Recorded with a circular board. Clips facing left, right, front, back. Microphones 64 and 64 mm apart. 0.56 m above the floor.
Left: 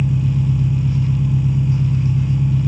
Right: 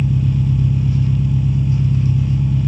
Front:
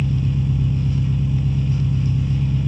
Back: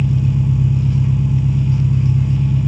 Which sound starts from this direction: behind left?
An engine running, at 0.0 s.